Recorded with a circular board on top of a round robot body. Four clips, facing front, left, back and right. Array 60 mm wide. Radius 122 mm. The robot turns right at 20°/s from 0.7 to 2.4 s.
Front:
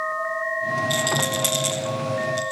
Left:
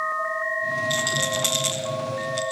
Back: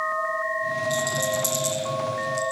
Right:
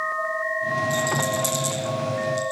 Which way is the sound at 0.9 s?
40° left.